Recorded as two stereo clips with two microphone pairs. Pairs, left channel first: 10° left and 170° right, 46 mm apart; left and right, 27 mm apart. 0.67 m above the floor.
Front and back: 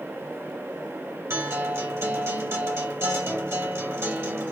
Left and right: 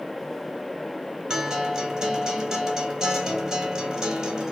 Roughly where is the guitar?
Behind right.